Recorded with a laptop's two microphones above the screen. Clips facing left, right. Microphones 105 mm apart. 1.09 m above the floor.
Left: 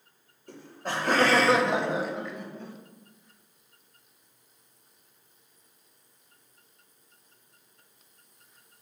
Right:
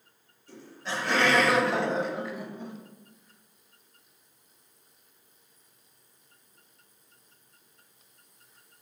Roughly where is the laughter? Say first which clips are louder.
Left 2 dB; left.